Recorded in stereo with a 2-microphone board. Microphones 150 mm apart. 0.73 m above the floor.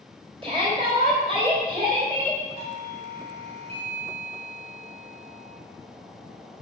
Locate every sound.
0.4 s a shout: 35° right (ahead or behind), 3.5 m
2.6 s a doorbell: 40° right (ahead or behind), 4.5 m